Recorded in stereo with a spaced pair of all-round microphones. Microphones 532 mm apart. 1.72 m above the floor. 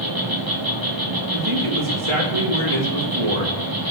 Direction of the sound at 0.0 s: 40° right (ahead or behind).